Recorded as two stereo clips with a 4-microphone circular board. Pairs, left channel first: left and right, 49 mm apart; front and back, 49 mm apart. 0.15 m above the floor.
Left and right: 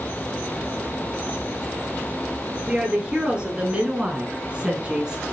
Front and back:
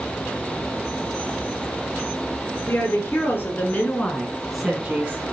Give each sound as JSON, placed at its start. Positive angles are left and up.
{"t": 2.7, "sound": "a woman speaking", "azimuth_deg": -20, "distance_m": 2.5}